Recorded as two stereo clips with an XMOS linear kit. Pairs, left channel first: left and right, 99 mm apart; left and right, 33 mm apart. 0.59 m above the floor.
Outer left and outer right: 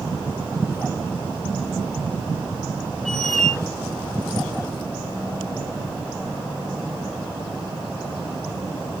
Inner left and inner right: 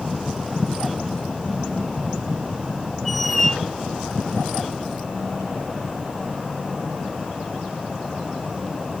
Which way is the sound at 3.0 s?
5° left (ahead or behind).